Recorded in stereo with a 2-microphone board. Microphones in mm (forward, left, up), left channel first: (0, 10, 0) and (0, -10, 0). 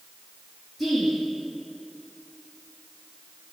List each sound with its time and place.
0.8 s a woman speaking: centre (ahead or behind), 3 m